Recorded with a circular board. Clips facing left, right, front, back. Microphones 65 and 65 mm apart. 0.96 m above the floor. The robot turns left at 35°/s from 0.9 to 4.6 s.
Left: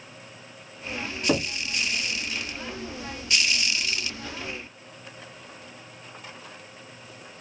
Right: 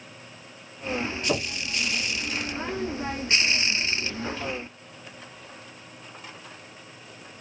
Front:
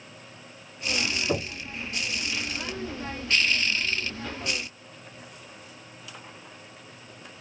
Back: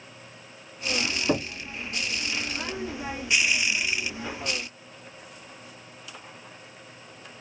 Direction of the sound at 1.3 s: 145° left.